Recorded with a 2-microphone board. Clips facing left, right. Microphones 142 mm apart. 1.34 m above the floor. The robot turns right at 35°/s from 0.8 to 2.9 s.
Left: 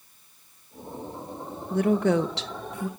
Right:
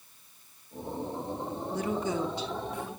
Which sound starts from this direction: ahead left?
A woman speaking, at 1.7 s.